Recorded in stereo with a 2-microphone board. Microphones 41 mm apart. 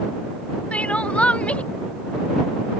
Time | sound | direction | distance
0.7 | crying | 30° left (ahead or behind) | ?